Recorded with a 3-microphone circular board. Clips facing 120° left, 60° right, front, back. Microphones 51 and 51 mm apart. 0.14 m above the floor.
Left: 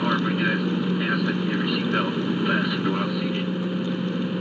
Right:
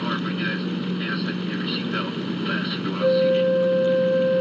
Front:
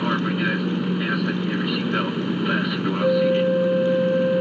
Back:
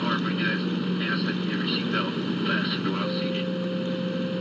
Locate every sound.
0.0 s an aircraft: 60° left
3.0 s a flute: 45° right